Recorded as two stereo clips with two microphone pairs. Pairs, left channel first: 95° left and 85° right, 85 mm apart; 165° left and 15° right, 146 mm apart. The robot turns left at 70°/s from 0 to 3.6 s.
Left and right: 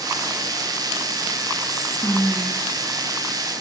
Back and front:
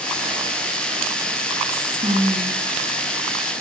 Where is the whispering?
60° left, 3 m; by 2.6 s 10° right, 3 m.